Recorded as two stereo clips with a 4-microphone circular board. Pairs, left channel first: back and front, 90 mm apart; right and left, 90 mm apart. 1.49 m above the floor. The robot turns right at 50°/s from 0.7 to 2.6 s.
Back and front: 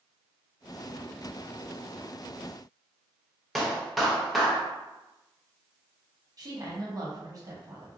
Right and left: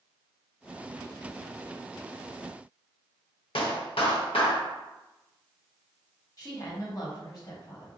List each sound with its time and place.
3.5 s a clap: 90° right, 0.8 m
6.4 s a woman speaking: 45° right, 1.1 m